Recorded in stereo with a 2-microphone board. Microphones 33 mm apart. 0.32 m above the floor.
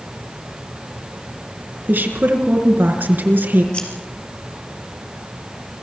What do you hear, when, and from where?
1.9 s a woman speaking: 75° right (ahead or behind), 4.5 m
3.7 s scissors: 30° left (ahead or behind), 4.5 m